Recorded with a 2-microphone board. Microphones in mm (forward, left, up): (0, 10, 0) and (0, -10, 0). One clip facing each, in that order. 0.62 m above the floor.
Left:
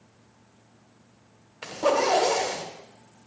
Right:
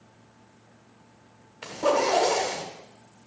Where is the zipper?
15° left (ahead or behind), 1.5 m.